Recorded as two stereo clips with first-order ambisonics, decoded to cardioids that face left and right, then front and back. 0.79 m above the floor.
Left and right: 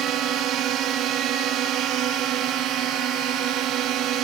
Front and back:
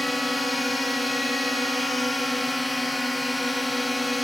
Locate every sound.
0.0 s a drone: 85° right